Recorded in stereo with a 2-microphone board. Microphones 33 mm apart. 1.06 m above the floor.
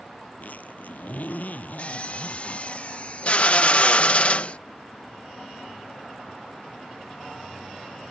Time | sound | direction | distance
0.4 | a zipper | 55° left (ahead or behind) | ?
1.8 | a drill | 40° left (ahead or behind) | ?